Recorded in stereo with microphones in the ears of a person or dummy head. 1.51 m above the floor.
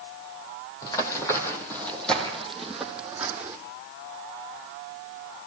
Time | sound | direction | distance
0.8 | running footsteps | 20° left (ahead or behind) | 3 m